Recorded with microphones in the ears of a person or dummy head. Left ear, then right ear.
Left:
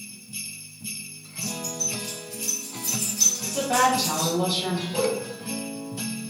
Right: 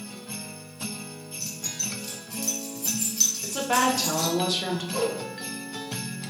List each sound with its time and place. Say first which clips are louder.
1.4 s keys jangling: left 3 dB; 15° right (ahead or behind), 0.6 m
3.4 s a woman speaking: left 1 dB; 55° right (ahead or behind), 0.7 m
4.9 s a whoosh: left 2 dB; 80° right, 1.2 m